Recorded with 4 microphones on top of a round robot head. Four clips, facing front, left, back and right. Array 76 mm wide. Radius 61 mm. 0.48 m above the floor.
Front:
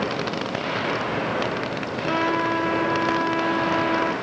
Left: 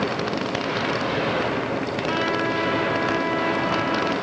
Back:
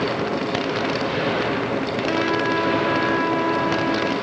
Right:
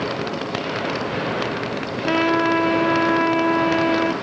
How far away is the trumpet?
About 6 m.